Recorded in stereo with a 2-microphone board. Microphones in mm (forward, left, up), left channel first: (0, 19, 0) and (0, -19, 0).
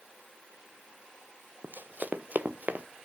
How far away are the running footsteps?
About 0.7 m.